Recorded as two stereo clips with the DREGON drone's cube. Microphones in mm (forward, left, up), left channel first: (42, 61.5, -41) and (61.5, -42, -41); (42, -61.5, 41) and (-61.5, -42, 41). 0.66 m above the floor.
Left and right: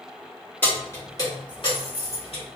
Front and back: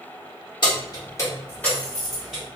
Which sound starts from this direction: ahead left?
Keys jangling, at 0.6 s.